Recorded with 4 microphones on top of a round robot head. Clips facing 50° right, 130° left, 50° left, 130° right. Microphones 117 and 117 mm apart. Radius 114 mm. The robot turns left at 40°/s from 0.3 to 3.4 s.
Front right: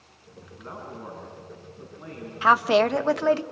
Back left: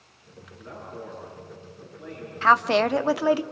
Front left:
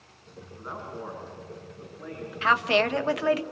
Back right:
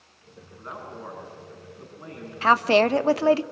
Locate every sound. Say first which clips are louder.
0.6 s a man speaking: even, front left 1 dB; 30° right, 7 m; by 3.4 s 140° right, 7 m
2.4 s a woman speaking: front right 1 dB, back right 5 dB; 120° right, 0.9 m; by 3.4 s 160° right, 0.9 m